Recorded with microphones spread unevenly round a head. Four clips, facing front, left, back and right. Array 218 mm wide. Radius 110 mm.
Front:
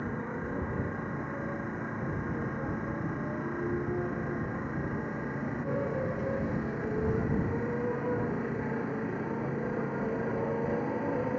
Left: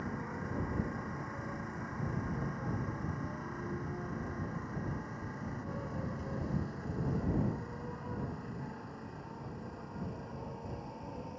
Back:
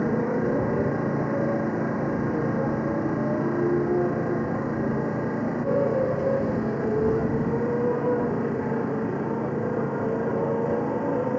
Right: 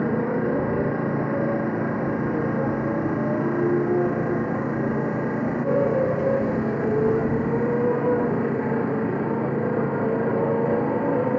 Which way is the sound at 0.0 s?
125° right.